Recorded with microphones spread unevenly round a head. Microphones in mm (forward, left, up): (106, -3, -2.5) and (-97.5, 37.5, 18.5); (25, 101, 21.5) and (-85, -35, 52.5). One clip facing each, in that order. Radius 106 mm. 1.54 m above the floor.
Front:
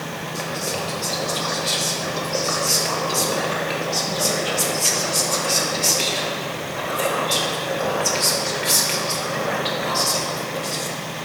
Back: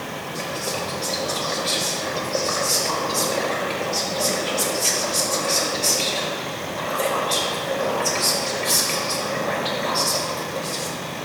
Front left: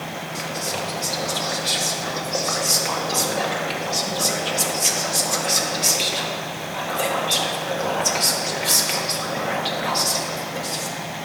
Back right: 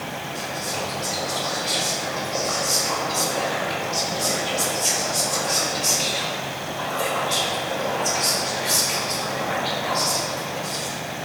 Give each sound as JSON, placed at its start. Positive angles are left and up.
{"t": 0.3, "sound": "whispering", "azimuth_deg": 65, "distance_m": 1.9}